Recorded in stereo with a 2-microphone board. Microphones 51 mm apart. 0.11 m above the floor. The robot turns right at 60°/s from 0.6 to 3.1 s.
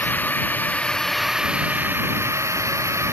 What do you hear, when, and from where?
0.0 s a drone: 145° left; by 3.1 s 65° right